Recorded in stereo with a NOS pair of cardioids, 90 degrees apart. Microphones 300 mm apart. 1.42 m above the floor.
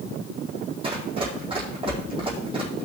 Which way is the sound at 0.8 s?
20° right.